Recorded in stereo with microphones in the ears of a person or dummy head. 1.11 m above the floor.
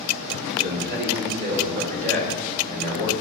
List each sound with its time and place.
0.6 s a man speaking: 60° right (ahead or behind), 3 m; by 3.1 s 45° right (ahead or behind), 5 m